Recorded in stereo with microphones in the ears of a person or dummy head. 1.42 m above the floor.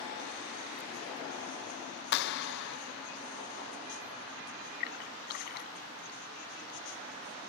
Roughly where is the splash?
Left.